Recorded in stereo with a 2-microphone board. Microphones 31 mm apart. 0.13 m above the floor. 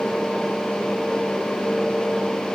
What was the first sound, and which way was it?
Only background noise.